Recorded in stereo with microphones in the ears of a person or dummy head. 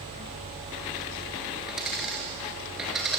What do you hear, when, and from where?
1.7 s a dropped coin: centre (ahead or behind), 3.5 m